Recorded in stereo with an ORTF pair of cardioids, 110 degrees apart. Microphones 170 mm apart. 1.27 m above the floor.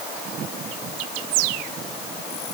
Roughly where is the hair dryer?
No hair dryer in this recording.